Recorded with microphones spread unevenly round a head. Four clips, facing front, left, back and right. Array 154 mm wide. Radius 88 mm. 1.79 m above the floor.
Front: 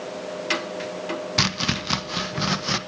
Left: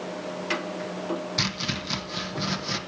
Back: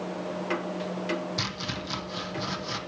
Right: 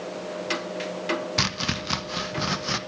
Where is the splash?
I don't hear a splash.